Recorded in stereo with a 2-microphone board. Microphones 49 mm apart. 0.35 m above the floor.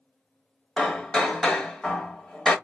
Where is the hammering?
15° left (ahead or behind), 0.7 m.